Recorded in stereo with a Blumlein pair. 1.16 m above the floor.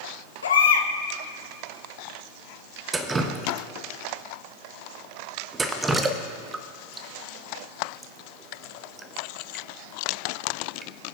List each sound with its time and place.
0.4 s a baby crying: 65° left, 1.1 m
2.9 s dripping: 15° right, 0.8 m